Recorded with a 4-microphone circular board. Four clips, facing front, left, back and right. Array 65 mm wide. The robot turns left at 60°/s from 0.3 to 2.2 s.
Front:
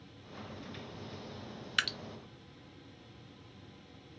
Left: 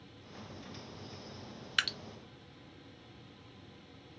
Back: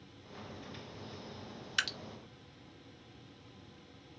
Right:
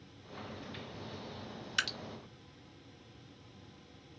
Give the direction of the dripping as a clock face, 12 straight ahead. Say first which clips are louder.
Left 2 dB, front 2 dB; 10 o'clock.